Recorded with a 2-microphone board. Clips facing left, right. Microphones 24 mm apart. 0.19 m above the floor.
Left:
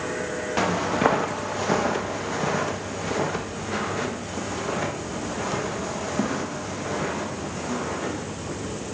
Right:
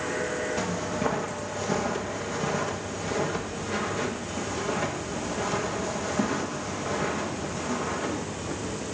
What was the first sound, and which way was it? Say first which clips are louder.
Footsteps: left 6 dB; 75° left (ahead or behind).